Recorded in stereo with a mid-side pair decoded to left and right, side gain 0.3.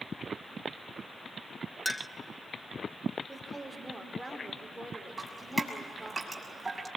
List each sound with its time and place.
1.9 s a clink: 20° left, 0.8 m
3.3 s a woman speaking: 15° right, 4.5 m
5.2 s dripping: 25° right, 6 m